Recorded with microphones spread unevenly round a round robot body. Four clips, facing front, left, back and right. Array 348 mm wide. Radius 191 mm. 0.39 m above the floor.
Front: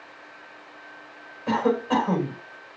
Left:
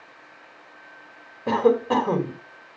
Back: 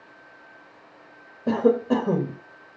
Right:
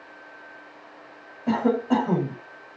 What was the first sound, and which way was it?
A cough, 140° left.